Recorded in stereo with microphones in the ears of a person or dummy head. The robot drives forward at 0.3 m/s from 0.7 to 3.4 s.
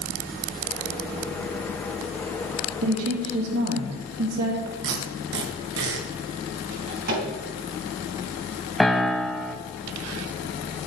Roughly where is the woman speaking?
Right.